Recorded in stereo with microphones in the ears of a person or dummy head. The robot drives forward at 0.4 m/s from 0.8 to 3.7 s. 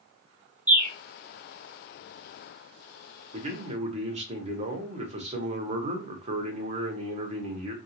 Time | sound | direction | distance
0.7 | a bird | 10° right (ahead or behind) | 0.8 m
3.3 | a man speaking | 35° right (ahead or behind) | 0.9 m